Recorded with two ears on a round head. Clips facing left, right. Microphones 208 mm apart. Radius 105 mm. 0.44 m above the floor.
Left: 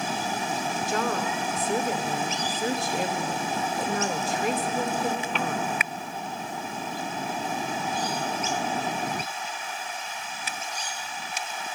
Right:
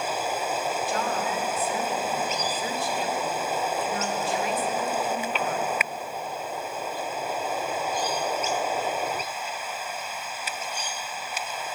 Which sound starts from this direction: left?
A woman speaking, at 0.9 s.